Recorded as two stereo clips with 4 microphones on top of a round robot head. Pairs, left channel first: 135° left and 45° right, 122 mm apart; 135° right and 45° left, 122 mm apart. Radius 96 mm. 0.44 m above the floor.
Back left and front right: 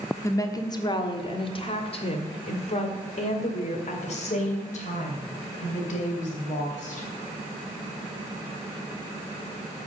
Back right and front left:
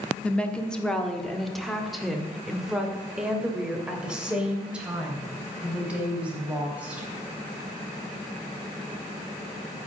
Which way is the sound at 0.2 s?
160° left.